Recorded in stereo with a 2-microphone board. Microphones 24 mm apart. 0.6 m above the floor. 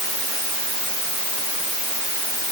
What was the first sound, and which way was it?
Only background noise.